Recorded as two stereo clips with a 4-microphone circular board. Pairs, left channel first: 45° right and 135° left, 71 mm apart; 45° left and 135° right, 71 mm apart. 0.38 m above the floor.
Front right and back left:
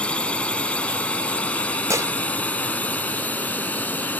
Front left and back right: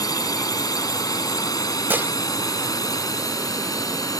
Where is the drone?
25° left; by 4.2 s 20° left.